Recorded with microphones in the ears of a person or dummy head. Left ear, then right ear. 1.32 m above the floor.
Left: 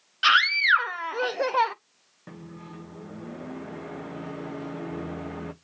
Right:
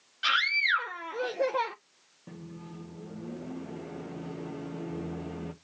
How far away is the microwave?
About 0.9 m.